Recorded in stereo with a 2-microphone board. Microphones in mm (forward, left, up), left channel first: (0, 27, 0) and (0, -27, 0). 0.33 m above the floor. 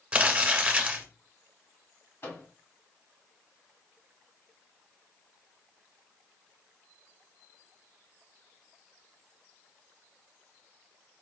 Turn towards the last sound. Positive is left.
turn(degrees=50)  # may be behind; listen again after turning